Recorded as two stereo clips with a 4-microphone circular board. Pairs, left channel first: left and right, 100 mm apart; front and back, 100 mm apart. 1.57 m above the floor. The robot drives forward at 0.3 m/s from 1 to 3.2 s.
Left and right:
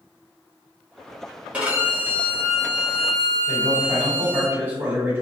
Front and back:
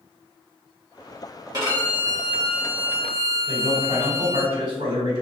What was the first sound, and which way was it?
A violin, 160° right.